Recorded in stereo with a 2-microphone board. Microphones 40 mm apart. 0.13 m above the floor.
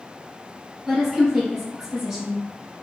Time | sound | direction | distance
0.9 | a woman speaking | 5° right (ahead or behind) | 1.7 m